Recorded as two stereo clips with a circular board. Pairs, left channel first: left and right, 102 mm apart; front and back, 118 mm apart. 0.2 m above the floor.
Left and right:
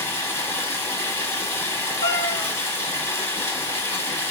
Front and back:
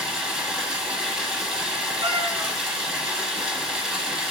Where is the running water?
105° left, 1.1 m.